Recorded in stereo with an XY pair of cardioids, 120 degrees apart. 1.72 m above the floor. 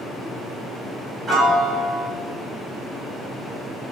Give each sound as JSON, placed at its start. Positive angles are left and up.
{"t": 1.3, "sound": "a piano", "azimuth_deg": -45, "distance_m": 1.0}